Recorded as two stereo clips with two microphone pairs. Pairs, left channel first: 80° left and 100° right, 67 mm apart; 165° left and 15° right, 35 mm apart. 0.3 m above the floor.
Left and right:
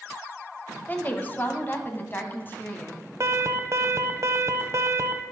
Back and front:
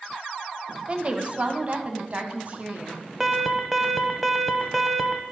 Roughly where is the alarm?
Right.